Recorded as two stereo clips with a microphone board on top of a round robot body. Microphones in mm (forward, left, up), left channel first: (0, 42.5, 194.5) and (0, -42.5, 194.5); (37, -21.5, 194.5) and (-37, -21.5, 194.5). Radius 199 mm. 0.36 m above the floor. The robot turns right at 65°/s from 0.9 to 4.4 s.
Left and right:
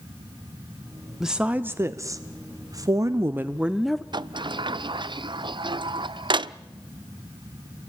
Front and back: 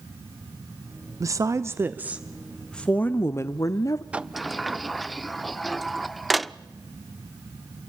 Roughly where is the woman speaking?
Behind.